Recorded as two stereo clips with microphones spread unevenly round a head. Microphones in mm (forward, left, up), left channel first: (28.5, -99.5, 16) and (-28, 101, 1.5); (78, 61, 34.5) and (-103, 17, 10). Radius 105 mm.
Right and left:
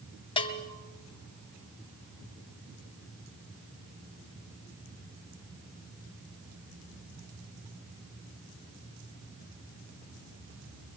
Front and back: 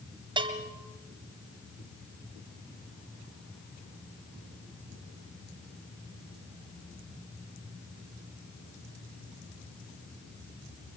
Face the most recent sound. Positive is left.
turn(degrees=-105)